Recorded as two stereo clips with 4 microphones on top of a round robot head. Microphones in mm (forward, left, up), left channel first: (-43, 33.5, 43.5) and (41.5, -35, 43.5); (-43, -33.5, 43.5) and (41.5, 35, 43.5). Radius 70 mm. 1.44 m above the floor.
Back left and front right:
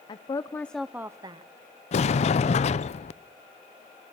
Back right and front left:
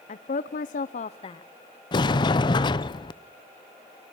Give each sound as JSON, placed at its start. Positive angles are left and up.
{"t": 0.1, "sound": "a woman speaking", "azimuth_deg": -165, "distance_m": 0.7}
{"t": 1.9, "sound": "a sliding door", "azimuth_deg": 170, "distance_m": 0.7}